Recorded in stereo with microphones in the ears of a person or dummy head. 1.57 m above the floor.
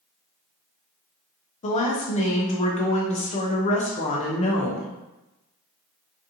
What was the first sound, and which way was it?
A woman speaking, 35° left (ahead or behind).